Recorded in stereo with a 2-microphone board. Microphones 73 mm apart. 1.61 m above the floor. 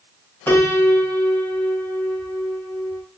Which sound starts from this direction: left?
A piano, at 0.5 s.